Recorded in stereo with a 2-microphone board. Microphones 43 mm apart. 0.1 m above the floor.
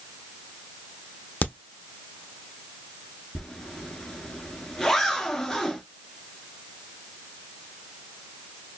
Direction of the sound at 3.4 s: 10° left (ahead or behind).